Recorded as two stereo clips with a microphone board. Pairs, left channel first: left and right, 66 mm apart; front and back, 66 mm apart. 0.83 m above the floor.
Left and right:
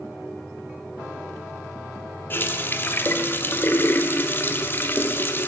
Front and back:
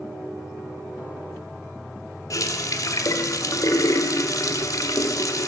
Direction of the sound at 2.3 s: 35° left.